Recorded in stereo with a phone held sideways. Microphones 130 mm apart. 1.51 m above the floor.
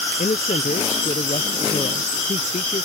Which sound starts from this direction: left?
A man speaking, at 0.2 s.